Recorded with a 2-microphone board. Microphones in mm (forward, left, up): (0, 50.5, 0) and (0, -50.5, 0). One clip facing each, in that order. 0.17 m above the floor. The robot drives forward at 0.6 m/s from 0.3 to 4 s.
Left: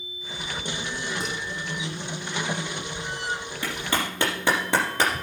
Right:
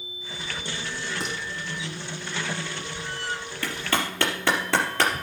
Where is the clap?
20° left (ahead or behind), 4 m; by 5.2 s 15° left (ahead or behind), 4.5 m.